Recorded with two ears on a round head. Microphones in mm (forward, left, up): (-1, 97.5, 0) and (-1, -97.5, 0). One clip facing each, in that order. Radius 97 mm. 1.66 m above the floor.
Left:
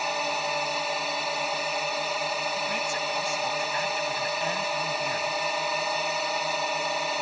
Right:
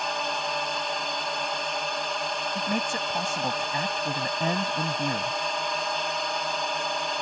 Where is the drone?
5° left (ahead or behind).